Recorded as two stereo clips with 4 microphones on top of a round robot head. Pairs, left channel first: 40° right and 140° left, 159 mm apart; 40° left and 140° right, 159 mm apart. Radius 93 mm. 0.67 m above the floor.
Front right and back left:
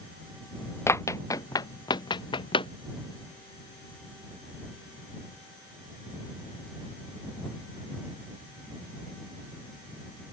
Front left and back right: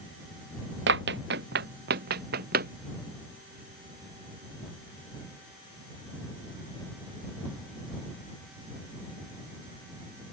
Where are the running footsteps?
115° right; by 2.7 s 100° right.